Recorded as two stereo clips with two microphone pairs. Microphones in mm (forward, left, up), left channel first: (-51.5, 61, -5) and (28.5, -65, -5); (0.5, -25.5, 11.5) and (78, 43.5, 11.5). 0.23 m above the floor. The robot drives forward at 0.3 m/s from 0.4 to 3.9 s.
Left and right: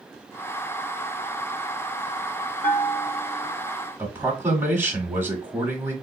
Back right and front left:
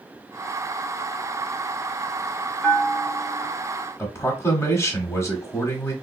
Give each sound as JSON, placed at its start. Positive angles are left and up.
{"t": 2.6, "sound": "a bell", "azimuth_deg": 140, "distance_m": 1.2}
{"t": 4.0, "sound": "a man speaking", "azimuth_deg": -115, "distance_m": 1.0}